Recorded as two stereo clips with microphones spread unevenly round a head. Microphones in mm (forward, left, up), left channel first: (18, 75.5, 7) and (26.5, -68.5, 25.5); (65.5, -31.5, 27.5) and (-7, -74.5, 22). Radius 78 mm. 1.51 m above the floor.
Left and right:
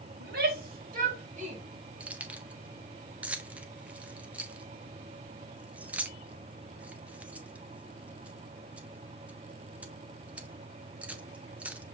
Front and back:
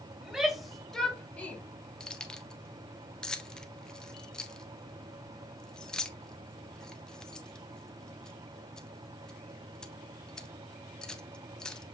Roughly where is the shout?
Ahead right.